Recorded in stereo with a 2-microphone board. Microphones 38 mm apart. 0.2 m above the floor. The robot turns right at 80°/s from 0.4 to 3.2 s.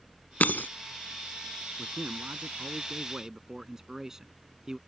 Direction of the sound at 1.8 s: 130° right.